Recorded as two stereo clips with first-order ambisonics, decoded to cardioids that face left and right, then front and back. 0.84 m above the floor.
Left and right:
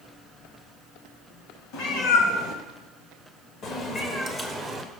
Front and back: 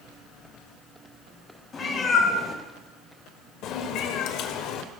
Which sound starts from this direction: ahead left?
A cat meowing, at 1.7 s.